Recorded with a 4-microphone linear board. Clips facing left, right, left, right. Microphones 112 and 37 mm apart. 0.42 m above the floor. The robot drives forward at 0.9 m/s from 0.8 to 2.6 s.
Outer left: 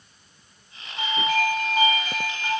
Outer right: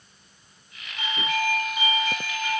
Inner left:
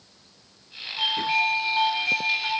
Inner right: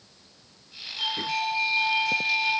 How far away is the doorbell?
About 2 m.